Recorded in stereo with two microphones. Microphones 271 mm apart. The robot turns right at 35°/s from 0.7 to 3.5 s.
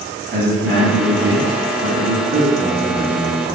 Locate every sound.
0.3 s a man speaking: 125° right, 1.5 m; by 3.5 s 25° right, 1.5 m